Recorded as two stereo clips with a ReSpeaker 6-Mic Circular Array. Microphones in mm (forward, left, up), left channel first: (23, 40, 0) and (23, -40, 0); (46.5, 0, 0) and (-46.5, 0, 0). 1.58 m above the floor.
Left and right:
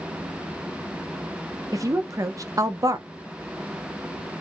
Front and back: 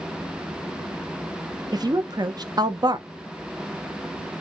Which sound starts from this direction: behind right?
A woman speaking, at 1.7 s.